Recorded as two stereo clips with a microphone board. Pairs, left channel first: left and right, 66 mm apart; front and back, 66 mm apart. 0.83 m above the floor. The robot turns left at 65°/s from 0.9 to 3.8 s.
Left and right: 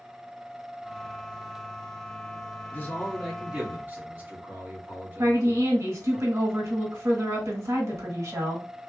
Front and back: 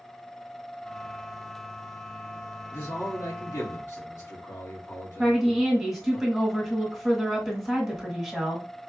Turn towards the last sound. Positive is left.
turn(degrees=-95)